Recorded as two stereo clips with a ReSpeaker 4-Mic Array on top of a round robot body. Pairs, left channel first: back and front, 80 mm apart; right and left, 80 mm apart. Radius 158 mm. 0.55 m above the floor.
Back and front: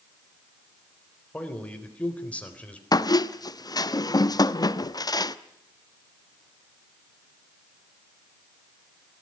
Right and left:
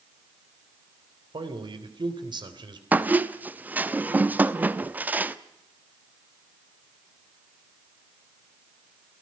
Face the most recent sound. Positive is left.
turn(degrees=155)